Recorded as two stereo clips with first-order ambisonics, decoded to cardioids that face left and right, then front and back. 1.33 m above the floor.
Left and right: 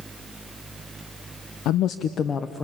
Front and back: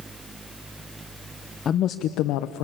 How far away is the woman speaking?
About 0.7 m.